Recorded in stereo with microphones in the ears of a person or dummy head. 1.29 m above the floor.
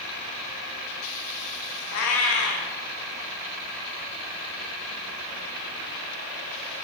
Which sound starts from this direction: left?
A cat meowing, at 1.9 s.